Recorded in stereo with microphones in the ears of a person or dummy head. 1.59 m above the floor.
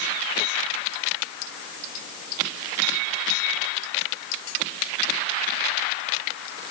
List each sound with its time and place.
Only background noise.